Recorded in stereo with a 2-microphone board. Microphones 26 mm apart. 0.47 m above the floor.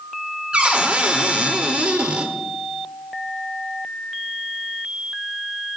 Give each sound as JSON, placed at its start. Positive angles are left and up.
{"t": 0.5, "sound": "a cupboard door", "side_deg": -40, "distance_m": 1.2}